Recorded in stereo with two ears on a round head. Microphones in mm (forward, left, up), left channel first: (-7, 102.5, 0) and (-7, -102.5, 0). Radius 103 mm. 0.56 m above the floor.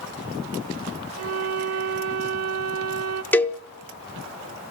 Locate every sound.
1.2 s a violin: 75° right (ahead or behind), 1.1 m
3.3 s a cowbell: 10° left (ahead or behind), 0.6 m